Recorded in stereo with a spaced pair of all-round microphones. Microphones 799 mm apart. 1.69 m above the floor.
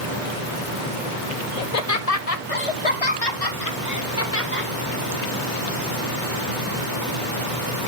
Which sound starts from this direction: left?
Laughter, at 1.6 s.